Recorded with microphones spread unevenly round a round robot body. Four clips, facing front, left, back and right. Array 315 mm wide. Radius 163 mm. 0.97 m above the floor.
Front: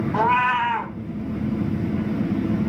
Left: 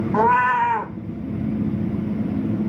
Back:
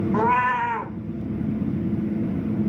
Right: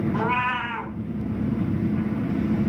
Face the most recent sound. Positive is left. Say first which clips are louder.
# left 8 dB, front 2 dB
turn(degrees=80)